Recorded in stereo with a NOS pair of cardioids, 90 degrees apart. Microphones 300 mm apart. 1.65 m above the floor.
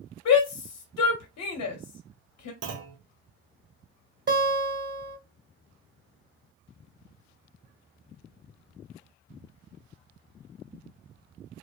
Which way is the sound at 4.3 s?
35° right.